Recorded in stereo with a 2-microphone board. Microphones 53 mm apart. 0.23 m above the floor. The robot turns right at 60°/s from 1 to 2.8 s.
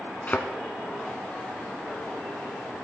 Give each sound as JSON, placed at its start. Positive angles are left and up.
{"t": 0.3, "sound": "a thud", "side_deg": 35, "distance_m": 0.9}